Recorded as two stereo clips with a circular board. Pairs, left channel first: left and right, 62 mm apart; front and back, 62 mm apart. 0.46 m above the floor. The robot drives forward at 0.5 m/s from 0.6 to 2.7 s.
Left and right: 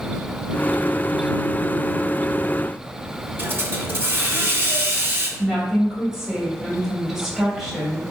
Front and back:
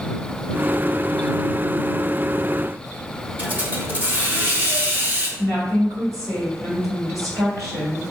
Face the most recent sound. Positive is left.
turn(degrees=-175)